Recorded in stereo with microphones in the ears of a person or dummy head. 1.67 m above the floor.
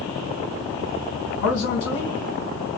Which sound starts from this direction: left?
A man speaking, at 1.4 s.